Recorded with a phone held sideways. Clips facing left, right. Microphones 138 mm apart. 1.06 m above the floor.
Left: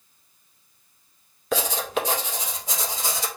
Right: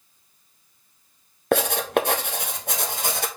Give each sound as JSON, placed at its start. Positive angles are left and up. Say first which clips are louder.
{"t": 1.5, "sound": "writing", "louder": "right 5 dB", "side_deg": -60, "distance_m": 1.2}